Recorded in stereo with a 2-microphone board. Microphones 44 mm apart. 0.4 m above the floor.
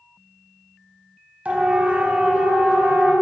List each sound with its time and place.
1.4 s a siren: 35° right (ahead or behind), 3 m; by 3.1 s 30° right (ahead or behind), 4.5 m